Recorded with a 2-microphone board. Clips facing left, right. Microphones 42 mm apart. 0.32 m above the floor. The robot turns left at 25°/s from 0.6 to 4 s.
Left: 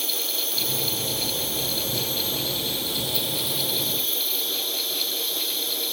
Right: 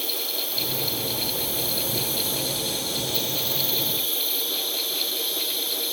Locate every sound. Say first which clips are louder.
0.0 s an insect: left 1 dB; 80° left, 5 m; by 5.9 s 5° right, 5 m